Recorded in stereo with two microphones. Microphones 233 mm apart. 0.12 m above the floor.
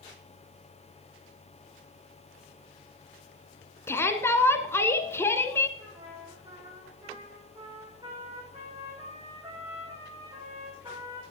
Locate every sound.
3.9 s a shout: 10° left (ahead or behind), 1.1 m
5.8 s a trumpet: 25° right (ahead or behind), 8.5 m